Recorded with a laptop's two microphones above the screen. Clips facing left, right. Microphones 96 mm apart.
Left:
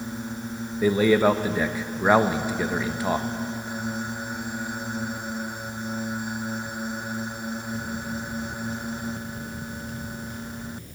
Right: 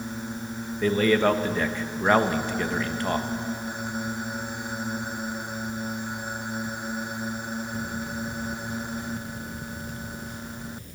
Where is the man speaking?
10° left (ahead or behind), 0.9 m.